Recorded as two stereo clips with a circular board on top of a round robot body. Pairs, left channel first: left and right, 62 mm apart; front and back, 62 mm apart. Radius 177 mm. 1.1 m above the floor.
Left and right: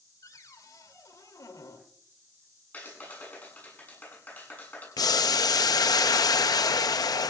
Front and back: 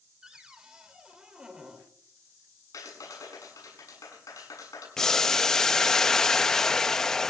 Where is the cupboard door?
105° left, 2.5 m.